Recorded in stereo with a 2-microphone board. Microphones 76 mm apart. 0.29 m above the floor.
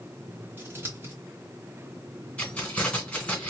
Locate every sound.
0.6 s scissors: 30° right (ahead or behind), 1.5 m
2.4 s keys jangling: 15° left (ahead or behind), 2.0 m